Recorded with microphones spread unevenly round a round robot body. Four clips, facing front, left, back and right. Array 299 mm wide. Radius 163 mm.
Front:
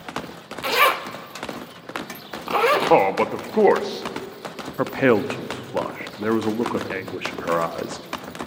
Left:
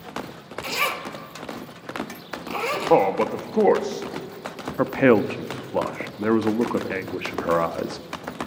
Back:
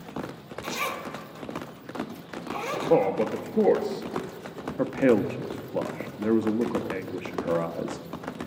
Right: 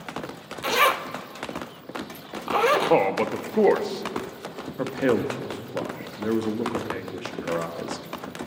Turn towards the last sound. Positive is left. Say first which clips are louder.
# left 6 dB, front 3 dB
turn(degrees=40)